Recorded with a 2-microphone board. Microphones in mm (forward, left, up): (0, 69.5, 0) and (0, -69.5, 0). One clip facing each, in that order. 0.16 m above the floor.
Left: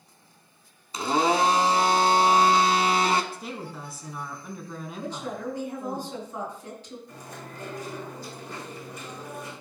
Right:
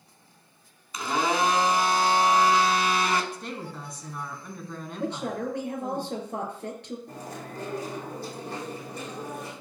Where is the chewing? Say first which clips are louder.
Right 3 dB; 60° right (ahead or behind), 4.5 m.